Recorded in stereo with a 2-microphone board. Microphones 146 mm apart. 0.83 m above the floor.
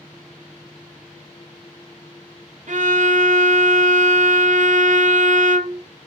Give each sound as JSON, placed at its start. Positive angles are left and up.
{"t": 2.7, "sound": "a violin", "side_deg": -60, "distance_m": 0.5}